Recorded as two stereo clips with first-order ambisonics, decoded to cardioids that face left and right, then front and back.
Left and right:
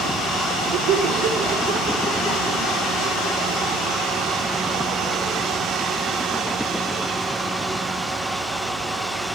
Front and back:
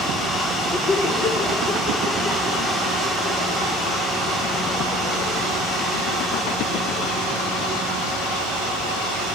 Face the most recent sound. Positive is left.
turn(degrees=-25)